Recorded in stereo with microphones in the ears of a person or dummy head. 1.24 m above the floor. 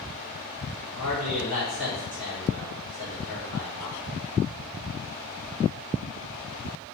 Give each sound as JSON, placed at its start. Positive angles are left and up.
{"t": 0.9, "sound": "a man speaking", "side_deg": -75, "distance_m": 1.7}